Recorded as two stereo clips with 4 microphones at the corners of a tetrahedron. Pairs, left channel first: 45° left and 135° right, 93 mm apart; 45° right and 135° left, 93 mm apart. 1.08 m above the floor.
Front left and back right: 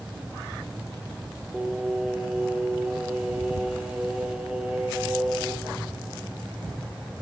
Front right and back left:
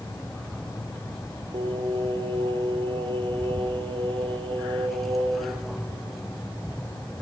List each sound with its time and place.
1.5 s singing: 145° left, 1.6 m